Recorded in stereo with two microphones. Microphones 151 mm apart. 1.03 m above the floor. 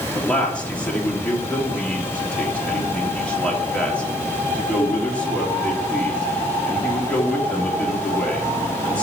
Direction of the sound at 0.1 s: 10° left (ahead or behind).